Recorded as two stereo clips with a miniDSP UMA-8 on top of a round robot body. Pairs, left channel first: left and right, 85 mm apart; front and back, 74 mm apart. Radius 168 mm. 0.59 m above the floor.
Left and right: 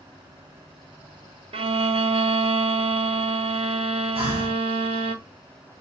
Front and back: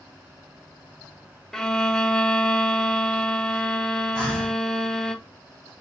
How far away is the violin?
About 0.7 m.